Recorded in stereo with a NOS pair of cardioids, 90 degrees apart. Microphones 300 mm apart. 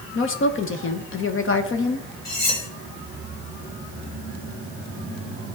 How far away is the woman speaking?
About 1.0 m.